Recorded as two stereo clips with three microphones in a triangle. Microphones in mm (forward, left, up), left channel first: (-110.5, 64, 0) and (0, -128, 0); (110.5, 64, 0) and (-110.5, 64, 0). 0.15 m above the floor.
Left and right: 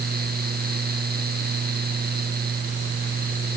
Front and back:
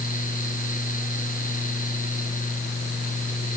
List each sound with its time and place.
Only background noise.